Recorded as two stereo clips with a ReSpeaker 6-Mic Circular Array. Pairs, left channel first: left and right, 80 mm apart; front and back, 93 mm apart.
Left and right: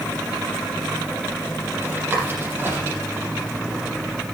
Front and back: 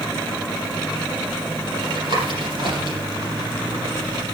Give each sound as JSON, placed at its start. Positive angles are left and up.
{"t": 1.8, "sound": "tapping", "azimuth_deg": -155, "distance_m": 8.5}